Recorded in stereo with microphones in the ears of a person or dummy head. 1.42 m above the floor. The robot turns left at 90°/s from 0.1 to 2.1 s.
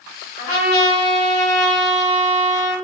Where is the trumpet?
130° left, 2 m; by 2.8 s 25° right, 2 m.